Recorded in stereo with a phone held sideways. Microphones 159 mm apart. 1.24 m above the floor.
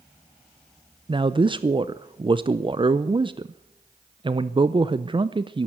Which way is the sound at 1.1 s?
30° right (ahead or behind).